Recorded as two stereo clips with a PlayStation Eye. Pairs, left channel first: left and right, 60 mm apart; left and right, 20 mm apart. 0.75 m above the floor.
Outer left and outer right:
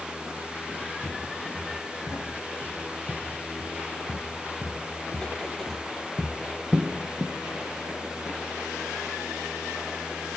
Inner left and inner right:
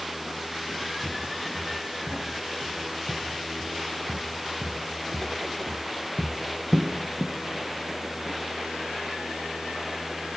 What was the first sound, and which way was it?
Footsteps, 55° left (ahead or behind).